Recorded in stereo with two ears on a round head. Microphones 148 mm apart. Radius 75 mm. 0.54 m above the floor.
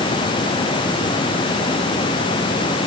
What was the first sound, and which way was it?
Only background noise.